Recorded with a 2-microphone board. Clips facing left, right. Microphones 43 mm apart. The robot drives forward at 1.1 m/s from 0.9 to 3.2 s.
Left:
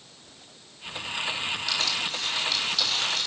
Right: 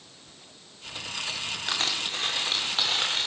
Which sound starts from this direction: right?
Crushing, at 1.7 s.